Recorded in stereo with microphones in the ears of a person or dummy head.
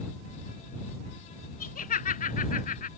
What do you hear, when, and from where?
1.6 s laughter: 35° left (ahead or behind)